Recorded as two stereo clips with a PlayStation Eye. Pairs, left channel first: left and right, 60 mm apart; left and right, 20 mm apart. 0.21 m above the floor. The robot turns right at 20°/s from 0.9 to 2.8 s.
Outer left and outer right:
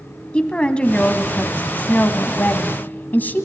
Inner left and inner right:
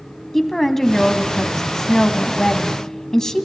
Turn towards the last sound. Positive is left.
turn(degrees=75)